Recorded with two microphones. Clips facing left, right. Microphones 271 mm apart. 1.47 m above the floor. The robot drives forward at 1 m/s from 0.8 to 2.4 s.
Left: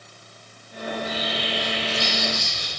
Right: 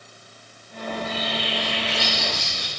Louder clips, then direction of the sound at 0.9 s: Even; 55° right (ahead or behind).